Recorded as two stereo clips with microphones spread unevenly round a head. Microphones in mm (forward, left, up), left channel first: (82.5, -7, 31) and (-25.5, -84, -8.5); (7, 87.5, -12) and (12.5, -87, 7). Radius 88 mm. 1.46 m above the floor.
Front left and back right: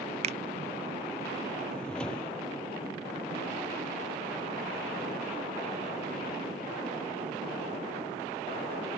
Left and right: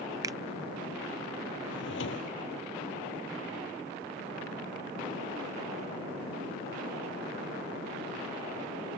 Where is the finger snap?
125° right.